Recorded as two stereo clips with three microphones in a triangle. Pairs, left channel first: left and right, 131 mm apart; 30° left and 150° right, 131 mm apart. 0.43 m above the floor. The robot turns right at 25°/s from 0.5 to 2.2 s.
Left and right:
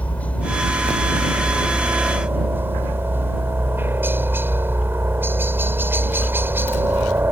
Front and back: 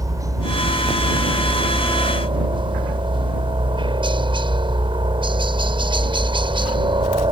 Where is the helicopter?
165° left; by 7.3 s 155° right.